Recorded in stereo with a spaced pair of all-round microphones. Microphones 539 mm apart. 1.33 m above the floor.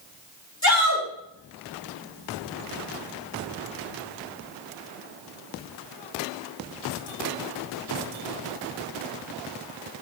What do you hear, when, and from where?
0.6 s a shout: 30° left (ahead or behind), 6.5 m